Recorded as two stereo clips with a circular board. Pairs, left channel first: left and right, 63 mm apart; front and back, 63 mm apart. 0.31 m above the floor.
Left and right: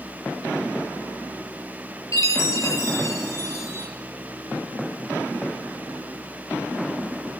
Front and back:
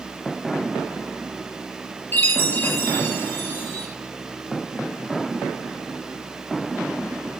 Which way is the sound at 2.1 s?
60° left.